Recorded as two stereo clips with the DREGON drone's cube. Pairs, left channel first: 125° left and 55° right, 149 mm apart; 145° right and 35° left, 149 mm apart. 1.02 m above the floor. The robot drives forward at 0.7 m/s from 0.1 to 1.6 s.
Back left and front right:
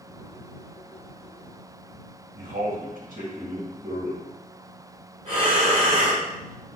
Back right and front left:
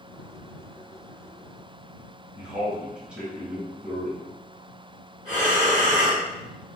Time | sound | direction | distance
2.4 | a man speaking | 45° right | 1.3 m
5.2 | breathing | 50° right | 2.0 m